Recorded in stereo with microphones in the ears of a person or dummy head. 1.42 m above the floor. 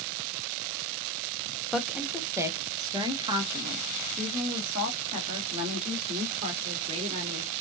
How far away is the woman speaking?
About 0.9 m.